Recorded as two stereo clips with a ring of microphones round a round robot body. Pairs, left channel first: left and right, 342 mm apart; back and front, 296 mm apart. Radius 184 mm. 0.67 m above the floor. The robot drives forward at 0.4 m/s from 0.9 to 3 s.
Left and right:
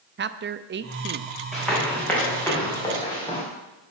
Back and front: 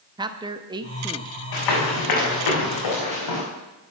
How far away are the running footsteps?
About 3.5 m.